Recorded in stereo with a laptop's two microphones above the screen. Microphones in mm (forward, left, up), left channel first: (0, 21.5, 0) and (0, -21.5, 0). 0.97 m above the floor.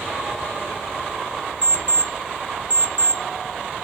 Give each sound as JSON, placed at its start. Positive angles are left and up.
{"t": 1.6, "sound": "an alarm clock", "side_deg": -30, "distance_m": 0.6}